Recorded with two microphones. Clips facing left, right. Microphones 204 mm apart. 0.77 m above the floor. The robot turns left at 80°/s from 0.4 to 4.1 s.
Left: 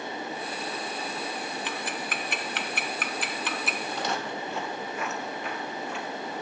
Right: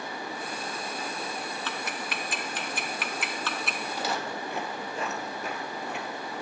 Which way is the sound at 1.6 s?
15° left (ahead or behind).